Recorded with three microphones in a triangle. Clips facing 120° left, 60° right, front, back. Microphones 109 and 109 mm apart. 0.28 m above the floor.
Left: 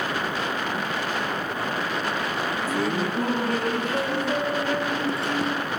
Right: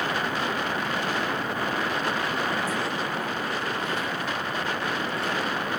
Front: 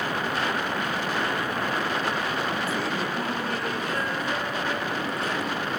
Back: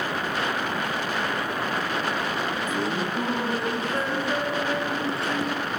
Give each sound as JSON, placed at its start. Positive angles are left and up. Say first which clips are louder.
{"t": 2.7, "sound": "laughter", "louder": "left 4 dB, back 1 dB", "azimuth_deg": 110}